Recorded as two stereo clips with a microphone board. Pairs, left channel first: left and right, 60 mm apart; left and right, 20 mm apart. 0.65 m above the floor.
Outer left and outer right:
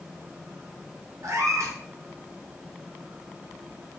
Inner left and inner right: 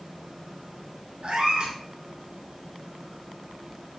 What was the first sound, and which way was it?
A cat meowing, 65° right (ahead or behind).